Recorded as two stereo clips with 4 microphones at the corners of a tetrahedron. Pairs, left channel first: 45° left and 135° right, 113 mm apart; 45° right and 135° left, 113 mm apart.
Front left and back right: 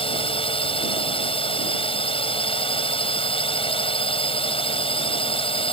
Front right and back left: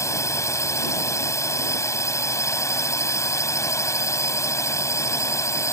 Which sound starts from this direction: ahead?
A drone, at 0.0 s.